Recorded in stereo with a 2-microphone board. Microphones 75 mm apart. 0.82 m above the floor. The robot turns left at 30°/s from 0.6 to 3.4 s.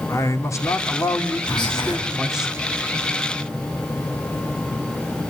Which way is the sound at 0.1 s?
45° left.